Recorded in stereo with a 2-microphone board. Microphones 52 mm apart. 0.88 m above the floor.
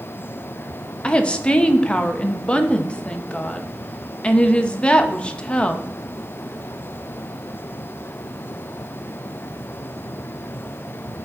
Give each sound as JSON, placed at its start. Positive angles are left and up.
{"t": 1.0, "sound": "a woman speaking", "side_deg": 20, "distance_m": 0.7}